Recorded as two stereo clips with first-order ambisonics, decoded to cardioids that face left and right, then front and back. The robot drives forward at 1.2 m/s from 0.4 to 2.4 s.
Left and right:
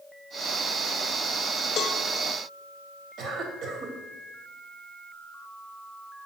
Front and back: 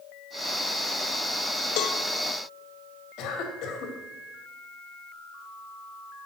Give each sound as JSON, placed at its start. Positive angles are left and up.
{"t": 1.8, "sound": "a cowbell", "azimuth_deg": 30, "distance_m": 0.8}
{"t": 3.2, "sound": "a cough", "azimuth_deg": -40, "distance_m": 2.5}